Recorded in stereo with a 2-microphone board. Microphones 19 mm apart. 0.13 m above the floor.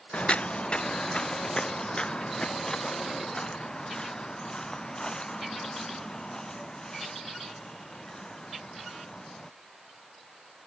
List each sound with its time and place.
0.1 s footsteps: 70° left (ahead or behind); by 9.5 s 35° left (ahead or behind)